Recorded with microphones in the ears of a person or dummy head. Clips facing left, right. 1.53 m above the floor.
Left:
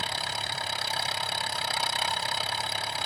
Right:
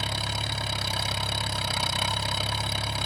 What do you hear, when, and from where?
0.0 s an engine running: 75° right (ahead or behind)